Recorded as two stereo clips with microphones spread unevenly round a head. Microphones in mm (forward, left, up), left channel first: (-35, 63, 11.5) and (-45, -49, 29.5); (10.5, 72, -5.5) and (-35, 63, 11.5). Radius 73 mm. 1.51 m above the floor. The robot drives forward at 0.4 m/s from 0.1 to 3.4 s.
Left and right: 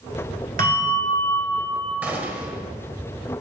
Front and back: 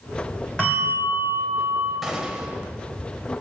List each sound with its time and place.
0.6 s a bell: 80° right, 4 m; by 1.9 s 85° right, 4 m
2.0 s a gunshot: 135° right, 1.4 m; by 2.6 s 145° right, 1.5 m